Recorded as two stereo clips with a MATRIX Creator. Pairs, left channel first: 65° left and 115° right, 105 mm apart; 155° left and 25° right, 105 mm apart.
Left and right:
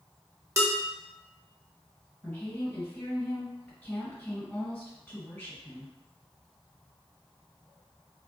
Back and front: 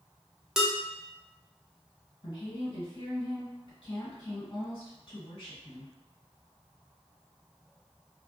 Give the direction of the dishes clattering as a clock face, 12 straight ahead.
3 o'clock.